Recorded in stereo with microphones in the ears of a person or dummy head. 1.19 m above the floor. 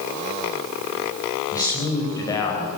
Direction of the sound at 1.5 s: 20° left (ahead or behind).